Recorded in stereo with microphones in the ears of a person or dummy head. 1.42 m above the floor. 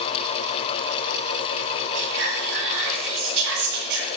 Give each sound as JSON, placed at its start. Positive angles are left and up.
{"t": 1.9, "sound": "whispering", "side_deg": -65, "distance_m": 5.5}